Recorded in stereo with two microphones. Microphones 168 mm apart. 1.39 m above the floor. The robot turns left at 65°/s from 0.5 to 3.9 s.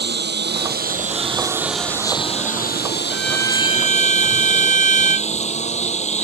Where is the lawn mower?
100° right; by 6.2 s 40° left.